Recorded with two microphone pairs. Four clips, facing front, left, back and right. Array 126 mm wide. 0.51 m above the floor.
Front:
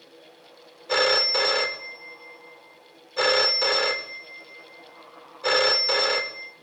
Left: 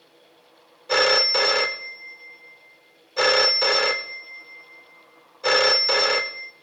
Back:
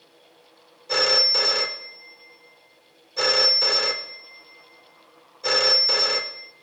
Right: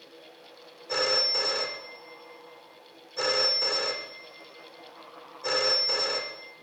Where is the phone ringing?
60° left, 0.5 m.